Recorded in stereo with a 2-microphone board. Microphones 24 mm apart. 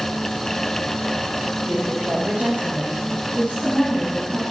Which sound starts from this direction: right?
A woman speaking, at 1.6 s.